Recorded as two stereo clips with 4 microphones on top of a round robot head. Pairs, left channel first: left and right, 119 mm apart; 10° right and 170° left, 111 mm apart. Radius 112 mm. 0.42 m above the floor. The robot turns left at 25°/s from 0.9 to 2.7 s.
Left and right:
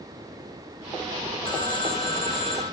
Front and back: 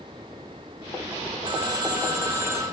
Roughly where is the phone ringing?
Behind left.